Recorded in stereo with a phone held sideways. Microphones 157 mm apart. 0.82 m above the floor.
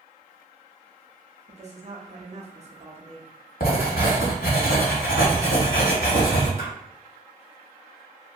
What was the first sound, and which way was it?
A woman speaking, 45° right (ahead or behind).